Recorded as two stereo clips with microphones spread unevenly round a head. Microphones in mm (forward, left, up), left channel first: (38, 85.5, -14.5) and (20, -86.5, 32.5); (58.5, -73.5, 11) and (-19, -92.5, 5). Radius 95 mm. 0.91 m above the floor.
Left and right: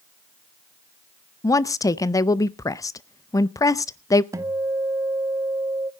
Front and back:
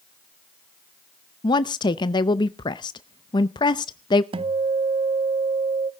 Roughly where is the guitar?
Behind.